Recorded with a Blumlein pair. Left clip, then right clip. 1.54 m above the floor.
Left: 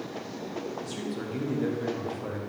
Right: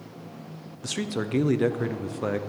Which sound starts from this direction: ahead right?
A man speaking, at 0.8 s.